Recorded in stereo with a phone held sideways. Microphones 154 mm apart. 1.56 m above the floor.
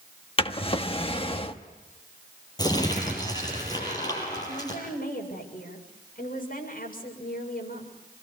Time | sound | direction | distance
0.4 | a drawer | 35° left (ahead or behind) | 1.1 m
2.6 | crumpling | 25° left (ahead or behind) | 7.5 m
4.5 | a woman speaking | 65° left (ahead or behind) | 6.5 m